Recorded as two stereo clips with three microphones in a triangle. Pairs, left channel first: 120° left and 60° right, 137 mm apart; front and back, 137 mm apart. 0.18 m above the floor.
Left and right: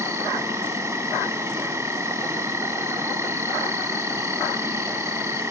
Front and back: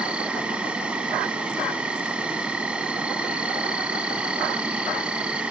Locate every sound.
0.0 s an insect: 105° right, 0.8 m